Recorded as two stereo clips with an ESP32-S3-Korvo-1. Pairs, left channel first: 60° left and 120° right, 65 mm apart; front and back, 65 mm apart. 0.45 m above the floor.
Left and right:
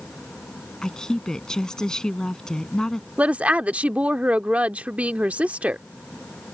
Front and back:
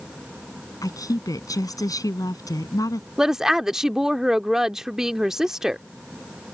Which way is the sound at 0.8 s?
20° right.